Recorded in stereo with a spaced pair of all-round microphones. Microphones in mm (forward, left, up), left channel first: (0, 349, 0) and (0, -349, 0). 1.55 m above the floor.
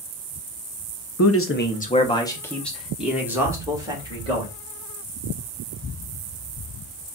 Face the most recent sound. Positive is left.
turn(degrees=-5)  # may be behind; listen again after turning